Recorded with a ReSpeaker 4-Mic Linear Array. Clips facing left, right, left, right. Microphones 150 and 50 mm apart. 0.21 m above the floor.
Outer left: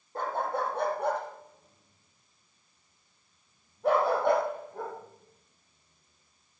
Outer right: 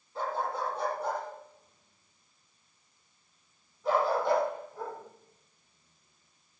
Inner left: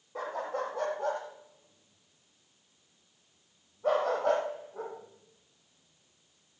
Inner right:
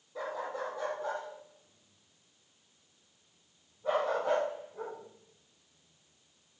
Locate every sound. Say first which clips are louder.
0.1 s a dog barking: outer left 2 dB, inner left 3 dB; 55° left (ahead or behind), 3.5 m; by 6.6 s 40° left (ahead or behind), 5.5 m